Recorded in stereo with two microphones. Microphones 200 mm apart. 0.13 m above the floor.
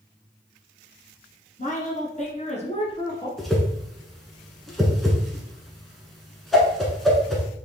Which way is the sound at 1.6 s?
40° left (ahead or behind).